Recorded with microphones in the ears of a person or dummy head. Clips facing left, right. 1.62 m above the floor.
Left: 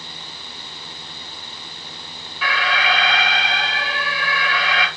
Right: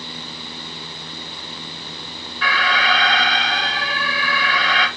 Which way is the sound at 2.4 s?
Centre (ahead or behind).